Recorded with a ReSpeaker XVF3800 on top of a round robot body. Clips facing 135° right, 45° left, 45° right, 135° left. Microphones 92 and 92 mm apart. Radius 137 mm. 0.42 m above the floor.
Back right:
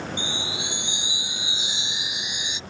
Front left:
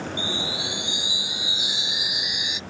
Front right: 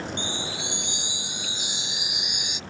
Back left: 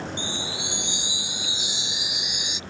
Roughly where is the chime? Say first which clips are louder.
Front left 2 dB, even; right.